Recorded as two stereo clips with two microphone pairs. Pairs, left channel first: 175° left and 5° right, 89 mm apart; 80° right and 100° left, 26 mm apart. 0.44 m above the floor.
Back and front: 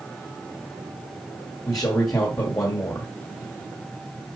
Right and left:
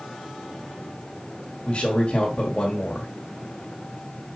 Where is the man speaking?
140° right, 1.9 m.